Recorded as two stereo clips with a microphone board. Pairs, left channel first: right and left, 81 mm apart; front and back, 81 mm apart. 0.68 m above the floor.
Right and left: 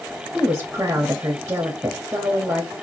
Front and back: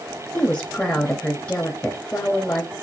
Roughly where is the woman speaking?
Ahead left.